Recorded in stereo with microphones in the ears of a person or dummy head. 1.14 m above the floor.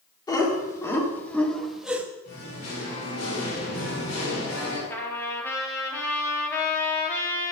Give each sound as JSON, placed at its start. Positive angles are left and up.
{"t": 0.3, "sound": "laughter", "side_deg": 20, "distance_m": 2.5}
{"t": 2.2, "sound": "singing", "side_deg": 60, "distance_m": 4.5}
{"t": 4.9, "sound": "a trumpet", "side_deg": 15, "distance_m": 1.7}